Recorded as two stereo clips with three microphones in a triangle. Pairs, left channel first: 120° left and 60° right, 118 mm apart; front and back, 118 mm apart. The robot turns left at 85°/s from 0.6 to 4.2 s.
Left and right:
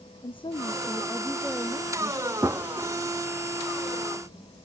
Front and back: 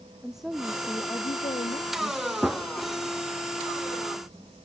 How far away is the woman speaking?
About 0.5 m.